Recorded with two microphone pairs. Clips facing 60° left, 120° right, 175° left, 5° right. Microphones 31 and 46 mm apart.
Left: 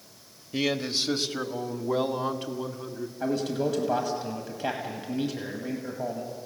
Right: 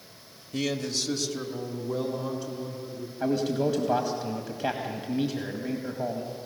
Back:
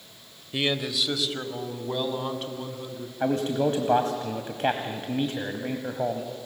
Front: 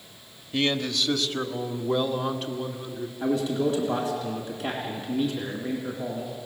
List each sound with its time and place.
0.5 s a man speaking: 100° left, 1.0 m; by 3.1 s 80° left, 2.5 m
3.2 s a man speaking: 155° left, 1.6 m